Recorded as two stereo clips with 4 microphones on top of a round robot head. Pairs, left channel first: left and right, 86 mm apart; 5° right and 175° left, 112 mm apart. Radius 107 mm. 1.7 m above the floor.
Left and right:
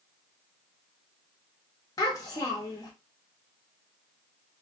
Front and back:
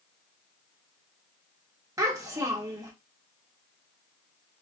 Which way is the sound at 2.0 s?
120° left.